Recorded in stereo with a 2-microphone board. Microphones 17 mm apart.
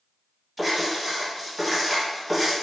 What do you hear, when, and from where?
0.6 s writing: 10° right (ahead or behind), 1.7 m